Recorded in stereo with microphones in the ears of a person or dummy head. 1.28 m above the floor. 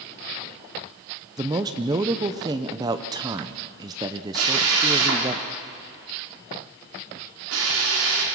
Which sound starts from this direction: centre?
A man speaking, at 1.4 s.